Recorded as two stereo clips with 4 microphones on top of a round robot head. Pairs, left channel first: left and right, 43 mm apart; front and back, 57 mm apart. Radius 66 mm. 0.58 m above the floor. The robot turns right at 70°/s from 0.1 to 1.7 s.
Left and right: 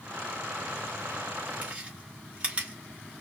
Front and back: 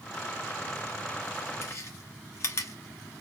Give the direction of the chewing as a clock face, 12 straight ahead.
1 o'clock.